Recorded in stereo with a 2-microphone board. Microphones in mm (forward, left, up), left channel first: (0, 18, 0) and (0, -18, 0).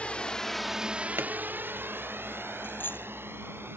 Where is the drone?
35° left (ahead or behind); by 3.8 s 80° right.